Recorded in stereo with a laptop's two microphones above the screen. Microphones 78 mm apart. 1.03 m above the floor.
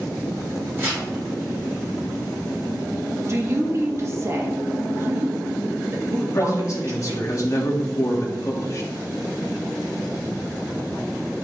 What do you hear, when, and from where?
0.8 s tearing paper: 30° right (ahead or behind), 3 m
3.3 s a woman speaking: 40° right (ahead or behind), 1.8 m
6.2 s a man speaking: 40° left (ahead or behind), 1.7 m